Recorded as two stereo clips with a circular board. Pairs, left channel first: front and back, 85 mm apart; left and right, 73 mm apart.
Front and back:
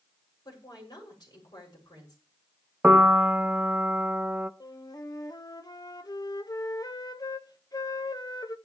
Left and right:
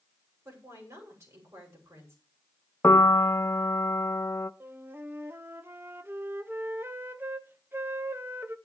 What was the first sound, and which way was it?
A woman speaking, 40° right.